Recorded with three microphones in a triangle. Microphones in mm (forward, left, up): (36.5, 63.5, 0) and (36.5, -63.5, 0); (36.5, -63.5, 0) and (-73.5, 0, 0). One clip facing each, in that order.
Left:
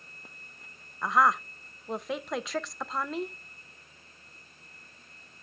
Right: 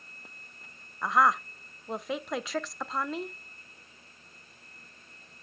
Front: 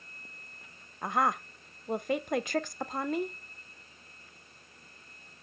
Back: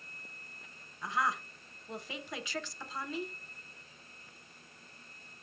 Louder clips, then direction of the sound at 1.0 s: Even, front 5 dB; straight ahead.